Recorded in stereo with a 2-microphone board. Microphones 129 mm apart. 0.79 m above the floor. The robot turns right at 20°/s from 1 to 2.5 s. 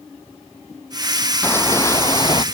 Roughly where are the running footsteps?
Centre.